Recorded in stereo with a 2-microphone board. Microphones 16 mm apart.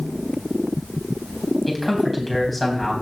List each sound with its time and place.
1.7 s a man speaking: 5° left (ahead or behind), 4 m